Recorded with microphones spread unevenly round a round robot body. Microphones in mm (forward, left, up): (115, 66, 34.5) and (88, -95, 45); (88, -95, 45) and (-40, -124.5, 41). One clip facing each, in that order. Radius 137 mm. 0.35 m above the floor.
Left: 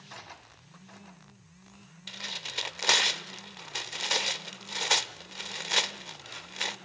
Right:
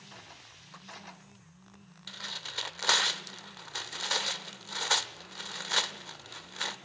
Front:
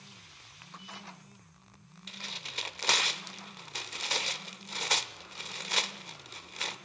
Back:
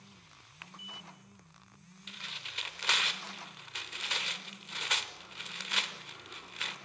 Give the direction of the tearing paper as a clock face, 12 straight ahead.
11 o'clock.